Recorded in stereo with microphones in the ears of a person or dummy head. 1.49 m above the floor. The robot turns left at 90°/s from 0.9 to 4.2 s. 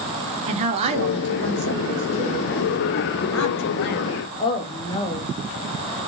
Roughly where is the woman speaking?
Ahead right.